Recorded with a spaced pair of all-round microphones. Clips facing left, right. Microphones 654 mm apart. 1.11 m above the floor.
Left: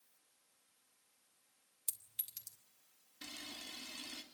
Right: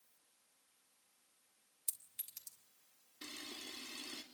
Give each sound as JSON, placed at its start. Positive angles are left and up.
{"t": 1.9, "sound": "a clink", "side_deg": 65, "distance_m": 3.0}
{"t": 3.2, "sound": "a camera shutter", "side_deg": 20, "distance_m": 3.5}